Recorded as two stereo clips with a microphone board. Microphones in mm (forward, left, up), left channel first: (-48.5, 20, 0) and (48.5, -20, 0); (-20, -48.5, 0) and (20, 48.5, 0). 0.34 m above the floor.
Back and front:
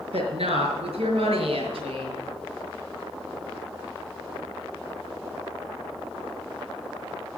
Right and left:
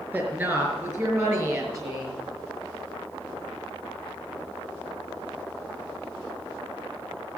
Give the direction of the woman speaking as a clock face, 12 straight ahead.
12 o'clock.